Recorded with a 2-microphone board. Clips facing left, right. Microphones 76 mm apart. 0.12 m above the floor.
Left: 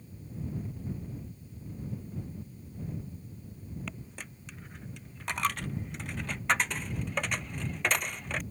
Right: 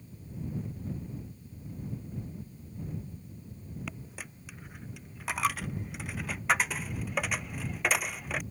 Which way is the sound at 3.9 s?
5° right (ahead or behind).